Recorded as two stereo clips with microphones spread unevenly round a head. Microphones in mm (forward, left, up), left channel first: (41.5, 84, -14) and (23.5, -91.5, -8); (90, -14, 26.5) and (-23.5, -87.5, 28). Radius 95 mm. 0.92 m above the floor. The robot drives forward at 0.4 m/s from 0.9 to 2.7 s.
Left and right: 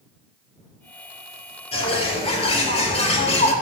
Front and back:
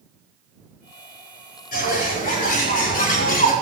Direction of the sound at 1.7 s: 30° left.